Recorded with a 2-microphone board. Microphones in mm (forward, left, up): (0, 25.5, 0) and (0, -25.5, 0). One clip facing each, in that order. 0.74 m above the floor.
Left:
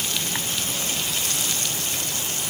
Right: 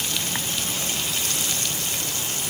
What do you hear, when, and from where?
Only background noise.